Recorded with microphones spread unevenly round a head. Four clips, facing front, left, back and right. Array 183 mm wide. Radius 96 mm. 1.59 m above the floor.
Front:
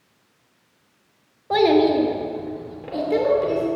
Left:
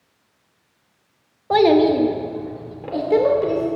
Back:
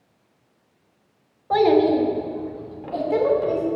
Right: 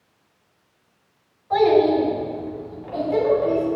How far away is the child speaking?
About 1.4 m.